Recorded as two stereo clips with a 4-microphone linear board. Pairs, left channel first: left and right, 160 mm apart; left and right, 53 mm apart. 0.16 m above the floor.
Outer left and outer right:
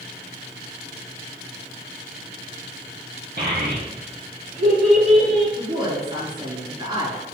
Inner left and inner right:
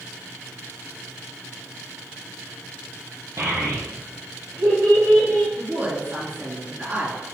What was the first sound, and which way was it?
A child speaking, 70° right (ahead or behind).